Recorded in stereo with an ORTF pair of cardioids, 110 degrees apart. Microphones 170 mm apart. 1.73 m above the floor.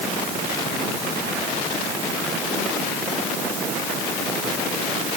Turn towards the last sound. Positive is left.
No sound to turn to.